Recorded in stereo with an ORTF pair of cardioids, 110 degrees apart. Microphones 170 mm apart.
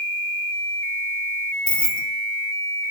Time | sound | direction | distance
1.7 | keys jangling | 5° left | 0.8 m